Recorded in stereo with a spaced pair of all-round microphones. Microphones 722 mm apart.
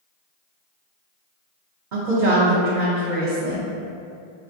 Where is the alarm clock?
No alarm clock in this recording.